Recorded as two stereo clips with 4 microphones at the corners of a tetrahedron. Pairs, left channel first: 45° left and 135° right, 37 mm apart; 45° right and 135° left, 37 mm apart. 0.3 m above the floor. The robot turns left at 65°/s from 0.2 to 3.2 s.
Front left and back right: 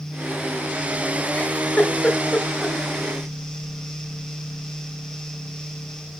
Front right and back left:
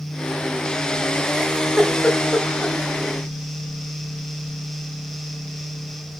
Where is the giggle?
65° left, 1.7 m; by 2.8 s 30° right, 1.7 m.